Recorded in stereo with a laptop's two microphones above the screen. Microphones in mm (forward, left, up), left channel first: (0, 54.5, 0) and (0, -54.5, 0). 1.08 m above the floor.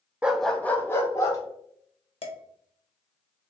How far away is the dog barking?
About 0.6 m.